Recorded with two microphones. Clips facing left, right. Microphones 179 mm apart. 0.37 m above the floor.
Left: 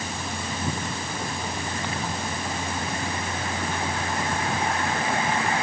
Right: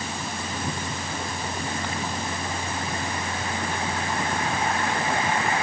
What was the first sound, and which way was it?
Only background noise.